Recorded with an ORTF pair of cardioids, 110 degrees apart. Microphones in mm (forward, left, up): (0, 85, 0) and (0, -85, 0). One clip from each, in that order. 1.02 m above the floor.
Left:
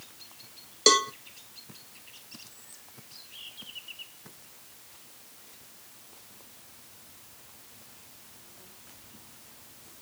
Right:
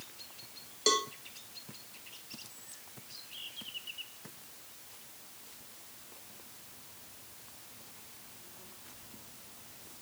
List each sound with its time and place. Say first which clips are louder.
0.9 s a cowbell: left 8 dB; 45° left, 1.0 m